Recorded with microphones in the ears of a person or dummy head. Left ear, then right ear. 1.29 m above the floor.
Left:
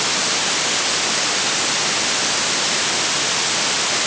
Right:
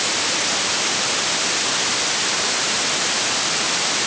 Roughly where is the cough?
I don't hear a cough.